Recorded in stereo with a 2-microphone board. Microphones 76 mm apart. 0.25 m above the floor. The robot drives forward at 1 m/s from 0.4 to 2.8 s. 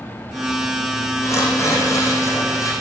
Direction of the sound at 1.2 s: 40° left (ahead or behind).